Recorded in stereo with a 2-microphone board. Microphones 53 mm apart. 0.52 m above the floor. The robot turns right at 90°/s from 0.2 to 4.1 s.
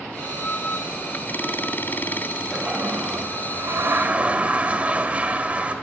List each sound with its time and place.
2.5 s a toilet flushing: 175° right, 2 m; by 5.8 s 30° right, 2 m